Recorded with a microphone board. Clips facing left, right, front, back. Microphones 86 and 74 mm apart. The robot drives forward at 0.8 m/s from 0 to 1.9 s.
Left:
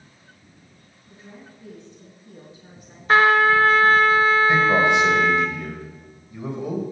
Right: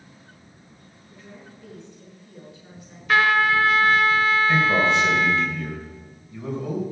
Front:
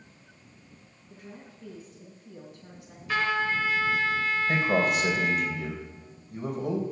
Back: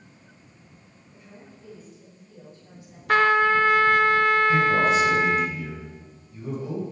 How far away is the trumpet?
About 0.5 m.